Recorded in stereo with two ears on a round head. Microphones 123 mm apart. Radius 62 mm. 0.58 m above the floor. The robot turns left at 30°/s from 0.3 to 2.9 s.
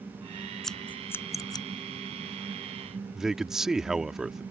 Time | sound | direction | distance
0.6 | scissors | 5° left (ahead or behind) | ?
3.1 | a man speaking | 5° right (ahead or behind) | ?